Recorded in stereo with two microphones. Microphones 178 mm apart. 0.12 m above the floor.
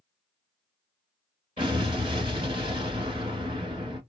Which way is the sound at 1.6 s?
25° right (ahead or behind).